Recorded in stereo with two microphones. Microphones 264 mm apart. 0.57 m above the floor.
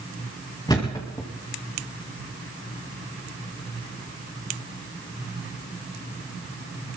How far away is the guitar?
I don't hear a guitar.